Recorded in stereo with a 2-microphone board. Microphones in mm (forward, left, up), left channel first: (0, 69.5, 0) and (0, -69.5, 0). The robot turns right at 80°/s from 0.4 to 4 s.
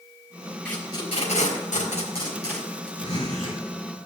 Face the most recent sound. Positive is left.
turn(degrees=120)